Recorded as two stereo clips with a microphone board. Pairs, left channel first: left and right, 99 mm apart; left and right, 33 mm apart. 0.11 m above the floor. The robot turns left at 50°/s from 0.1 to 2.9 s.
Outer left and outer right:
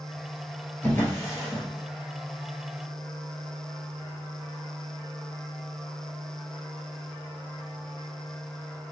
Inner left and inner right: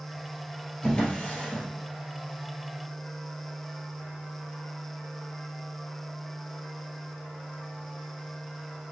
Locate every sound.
0.8 s a drawer: 20° left (ahead or behind), 1.2 m; by 1.6 s 40° left (ahead or behind), 1.2 m